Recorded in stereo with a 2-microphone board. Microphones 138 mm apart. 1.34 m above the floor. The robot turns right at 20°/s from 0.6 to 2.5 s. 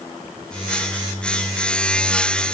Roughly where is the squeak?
I don't hear a squeak.